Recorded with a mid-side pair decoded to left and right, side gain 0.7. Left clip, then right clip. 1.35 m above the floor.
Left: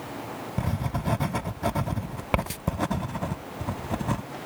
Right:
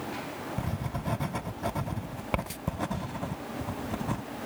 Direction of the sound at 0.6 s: 20° left.